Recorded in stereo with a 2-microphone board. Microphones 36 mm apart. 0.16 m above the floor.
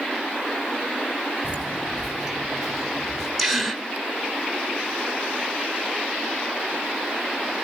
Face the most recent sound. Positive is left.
turn(degrees=0)  # may be behind; listen again after turning